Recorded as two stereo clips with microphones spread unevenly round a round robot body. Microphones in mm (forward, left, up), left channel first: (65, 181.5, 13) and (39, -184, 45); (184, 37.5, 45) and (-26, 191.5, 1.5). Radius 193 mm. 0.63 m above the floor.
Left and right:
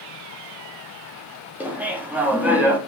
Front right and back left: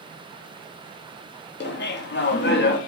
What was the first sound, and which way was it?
Laughter, 5° right.